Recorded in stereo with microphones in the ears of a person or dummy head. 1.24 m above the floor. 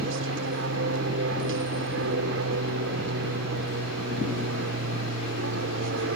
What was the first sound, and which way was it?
An aircraft, 65° right (ahead or behind).